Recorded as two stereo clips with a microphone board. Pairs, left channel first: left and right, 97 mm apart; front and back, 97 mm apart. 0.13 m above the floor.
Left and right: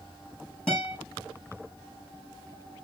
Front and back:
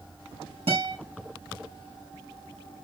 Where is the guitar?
170° left, 5.5 m.